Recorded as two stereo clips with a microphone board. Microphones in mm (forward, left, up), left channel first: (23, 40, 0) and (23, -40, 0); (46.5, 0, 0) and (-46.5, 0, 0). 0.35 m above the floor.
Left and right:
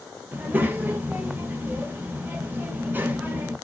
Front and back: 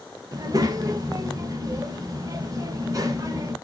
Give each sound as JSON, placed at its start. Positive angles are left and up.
{"t": 0.3, "sound": "a child speaking", "azimuth_deg": -150, "distance_m": 0.6}